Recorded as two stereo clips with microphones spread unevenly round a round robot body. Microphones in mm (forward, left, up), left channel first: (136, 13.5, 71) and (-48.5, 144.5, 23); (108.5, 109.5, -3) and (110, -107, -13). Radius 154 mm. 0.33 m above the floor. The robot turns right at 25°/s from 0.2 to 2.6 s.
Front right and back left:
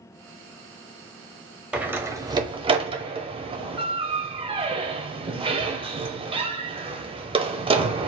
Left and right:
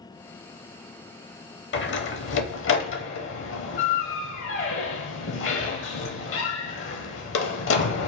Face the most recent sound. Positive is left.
turn(degrees=90)